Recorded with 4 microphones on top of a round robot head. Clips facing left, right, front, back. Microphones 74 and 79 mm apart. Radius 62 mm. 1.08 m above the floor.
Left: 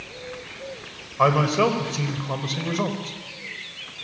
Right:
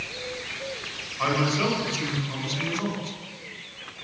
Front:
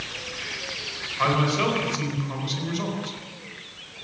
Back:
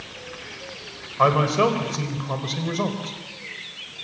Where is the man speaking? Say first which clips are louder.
Left 6 dB, back 4 dB; 130° left, 4.5 m.